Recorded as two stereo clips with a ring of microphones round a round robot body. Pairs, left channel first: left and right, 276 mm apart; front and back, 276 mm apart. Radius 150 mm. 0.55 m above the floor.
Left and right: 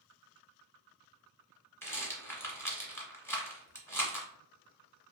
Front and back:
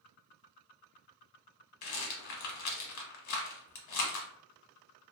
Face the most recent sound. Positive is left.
turn(degrees=10)